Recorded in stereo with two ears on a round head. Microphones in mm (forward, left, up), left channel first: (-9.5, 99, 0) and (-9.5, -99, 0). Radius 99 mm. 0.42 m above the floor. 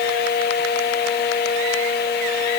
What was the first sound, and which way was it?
Only background noise.